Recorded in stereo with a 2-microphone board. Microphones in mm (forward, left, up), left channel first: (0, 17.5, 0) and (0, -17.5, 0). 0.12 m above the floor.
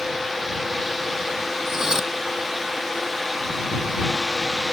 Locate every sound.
1.7 s cutlery clinking: 15° right (ahead or behind)